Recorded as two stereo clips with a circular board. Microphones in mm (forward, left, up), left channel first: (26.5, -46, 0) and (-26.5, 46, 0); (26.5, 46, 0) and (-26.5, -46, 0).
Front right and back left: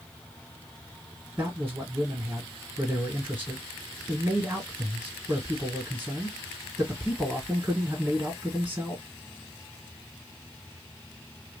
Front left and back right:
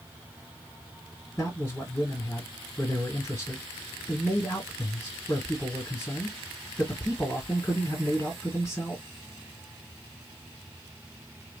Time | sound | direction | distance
1.4 | a man speaking | 85° left | 1.7 m